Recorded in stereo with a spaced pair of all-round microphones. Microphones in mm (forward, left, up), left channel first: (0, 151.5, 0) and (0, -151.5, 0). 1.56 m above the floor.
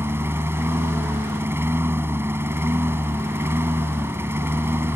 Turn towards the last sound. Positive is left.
turn(degrees=-5)  # may be behind; listen again after turning